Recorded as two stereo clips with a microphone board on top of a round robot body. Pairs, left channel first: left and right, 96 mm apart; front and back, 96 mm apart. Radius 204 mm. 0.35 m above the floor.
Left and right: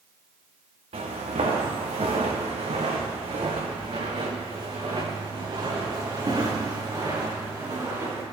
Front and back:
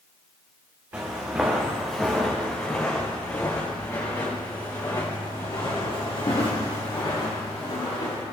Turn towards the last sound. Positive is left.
turn(degrees=-30)